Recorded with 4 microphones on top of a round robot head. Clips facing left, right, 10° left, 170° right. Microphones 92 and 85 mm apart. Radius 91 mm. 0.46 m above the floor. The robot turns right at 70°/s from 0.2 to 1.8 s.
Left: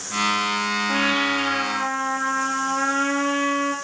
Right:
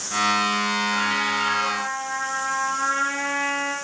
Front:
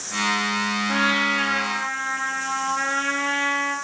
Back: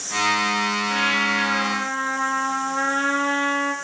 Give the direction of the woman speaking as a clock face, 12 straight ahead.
No woman speaking in this recording.